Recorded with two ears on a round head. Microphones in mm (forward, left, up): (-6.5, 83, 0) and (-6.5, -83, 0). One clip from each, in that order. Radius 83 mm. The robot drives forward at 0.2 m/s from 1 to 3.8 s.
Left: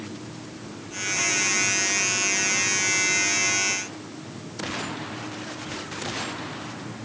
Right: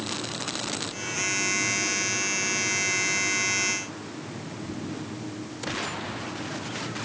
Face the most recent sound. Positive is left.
No sound to turn to.